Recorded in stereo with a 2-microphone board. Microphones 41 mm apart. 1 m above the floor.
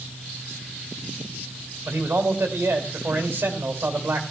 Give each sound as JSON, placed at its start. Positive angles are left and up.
{"t": 1.9, "sound": "a man speaking", "side_deg": -75, "distance_m": 2.5}